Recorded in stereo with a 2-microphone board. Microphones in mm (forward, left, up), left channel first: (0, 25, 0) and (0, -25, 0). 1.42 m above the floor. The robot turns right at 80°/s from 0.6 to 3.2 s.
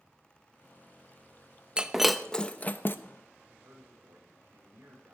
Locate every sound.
1.8 s breaking glass: 20° right (ahead or behind), 0.8 m; by 3.0 s 45° left (ahead or behind), 0.8 m
3.5 s a man speaking: 60° right (ahead or behind), 6 m